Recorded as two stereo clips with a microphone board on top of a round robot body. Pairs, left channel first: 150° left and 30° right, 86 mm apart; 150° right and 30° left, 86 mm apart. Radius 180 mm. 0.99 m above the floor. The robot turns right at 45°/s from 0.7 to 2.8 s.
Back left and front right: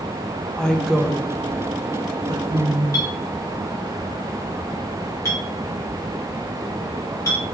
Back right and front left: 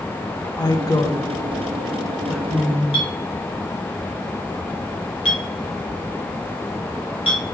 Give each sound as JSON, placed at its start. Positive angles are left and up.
{"t": 0.6, "sound": "a woman speaking", "azimuth_deg": -130, "distance_m": 0.8}
{"t": 2.9, "sound": "a clink", "azimuth_deg": -155, "distance_m": 1.6}